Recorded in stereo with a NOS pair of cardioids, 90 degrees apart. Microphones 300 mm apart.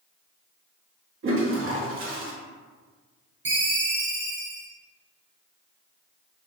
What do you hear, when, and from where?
1.2 s a toilet flushing: 45° right, 1.1 m
3.5 s a ringtone: 40° right, 1.5 m